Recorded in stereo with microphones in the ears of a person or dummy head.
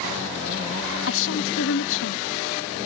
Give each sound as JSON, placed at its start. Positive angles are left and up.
{"t": 1.1, "sound": "a woman speaking", "side_deg": 70}